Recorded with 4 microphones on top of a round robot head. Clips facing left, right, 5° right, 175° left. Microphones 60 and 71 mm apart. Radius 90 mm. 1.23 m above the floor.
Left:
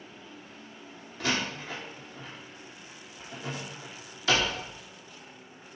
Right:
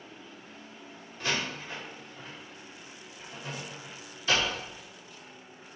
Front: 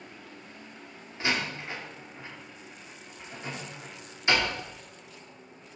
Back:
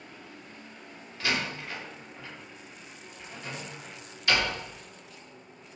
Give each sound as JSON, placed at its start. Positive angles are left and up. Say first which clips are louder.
{"t": 1.2, "sound": "a door slam", "louder": "left 2 dB, front 1 dB", "azimuth_deg": 65, "distance_m": 2.0}